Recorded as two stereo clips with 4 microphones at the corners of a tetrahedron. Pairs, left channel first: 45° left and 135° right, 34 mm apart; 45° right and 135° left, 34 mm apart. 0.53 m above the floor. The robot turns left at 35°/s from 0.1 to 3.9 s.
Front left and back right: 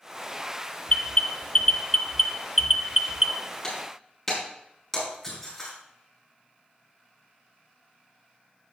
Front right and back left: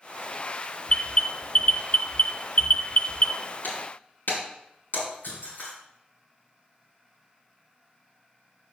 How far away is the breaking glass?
About 4.5 m.